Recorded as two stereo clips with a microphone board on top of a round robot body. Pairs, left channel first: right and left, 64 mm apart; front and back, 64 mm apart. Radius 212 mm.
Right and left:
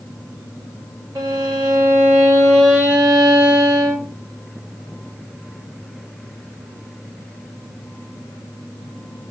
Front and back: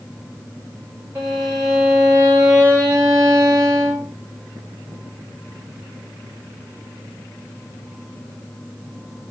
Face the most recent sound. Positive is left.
turn(degrees=135)